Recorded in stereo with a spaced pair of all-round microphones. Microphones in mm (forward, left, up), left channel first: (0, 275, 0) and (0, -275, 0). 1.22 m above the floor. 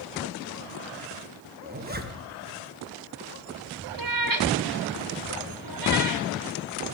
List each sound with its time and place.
1.6 s a zipper: 20° right (ahead or behind), 1.0 m
4.0 s a cat meowing: 40° right (ahead or behind), 0.8 m